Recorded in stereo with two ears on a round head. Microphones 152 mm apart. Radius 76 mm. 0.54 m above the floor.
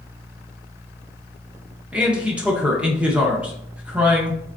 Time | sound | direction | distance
1.9 | a man speaking | 10° right (ahead or behind) | 0.8 m